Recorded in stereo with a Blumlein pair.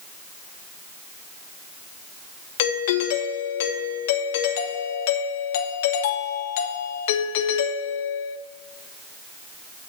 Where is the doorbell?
55° left, 0.9 m.